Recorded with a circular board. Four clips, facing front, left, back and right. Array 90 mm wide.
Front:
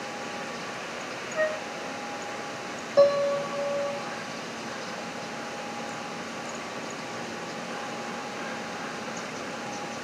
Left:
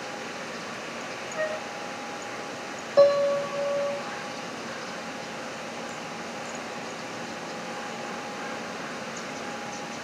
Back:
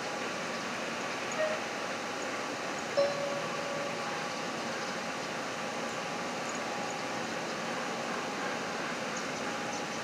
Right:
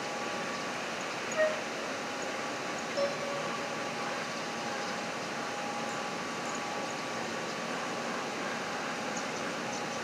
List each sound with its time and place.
1.4 s a flute: 5° right, 1.6 m
3.0 s a piano: 55° left, 1.3 m